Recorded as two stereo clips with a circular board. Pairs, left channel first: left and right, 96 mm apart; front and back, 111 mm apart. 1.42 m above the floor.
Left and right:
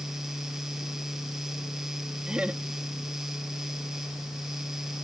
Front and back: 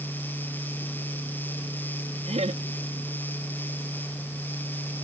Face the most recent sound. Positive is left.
turn(degrees=-170)